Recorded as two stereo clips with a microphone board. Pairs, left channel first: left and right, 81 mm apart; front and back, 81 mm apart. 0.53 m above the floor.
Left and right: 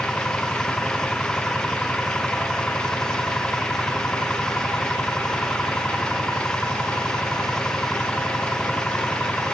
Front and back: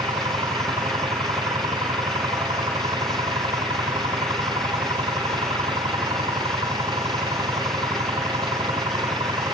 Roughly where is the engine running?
Behind.